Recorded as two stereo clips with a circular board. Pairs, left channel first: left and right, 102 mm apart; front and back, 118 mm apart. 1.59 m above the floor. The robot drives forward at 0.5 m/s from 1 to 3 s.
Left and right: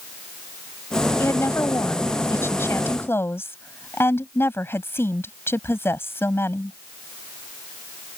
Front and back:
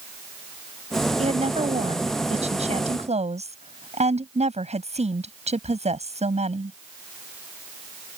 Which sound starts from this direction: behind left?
A woman speaking, at 1.2 s.